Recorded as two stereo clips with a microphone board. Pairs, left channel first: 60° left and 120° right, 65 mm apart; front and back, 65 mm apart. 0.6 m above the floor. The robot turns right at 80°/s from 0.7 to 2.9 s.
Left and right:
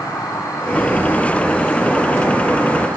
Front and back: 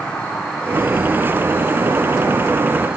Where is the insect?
75° left, 3 m; by 3.0 s 110° right, 3 m.